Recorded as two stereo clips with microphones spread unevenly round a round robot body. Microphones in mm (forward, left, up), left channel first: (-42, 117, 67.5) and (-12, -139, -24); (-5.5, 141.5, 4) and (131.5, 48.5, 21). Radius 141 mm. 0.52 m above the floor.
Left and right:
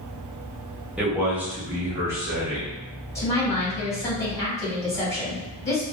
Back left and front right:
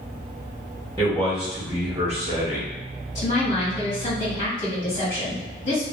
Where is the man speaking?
150° right, 1.0 m; by 2.7 s 25° right, 1.0 m.